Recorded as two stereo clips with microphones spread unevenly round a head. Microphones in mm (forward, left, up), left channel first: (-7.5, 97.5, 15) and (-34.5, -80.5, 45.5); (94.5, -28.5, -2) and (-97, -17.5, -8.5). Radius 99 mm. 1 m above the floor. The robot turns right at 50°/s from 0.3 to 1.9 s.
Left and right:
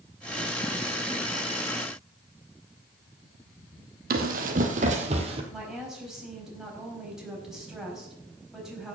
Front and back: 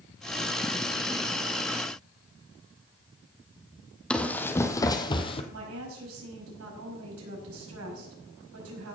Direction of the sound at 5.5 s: 175° left.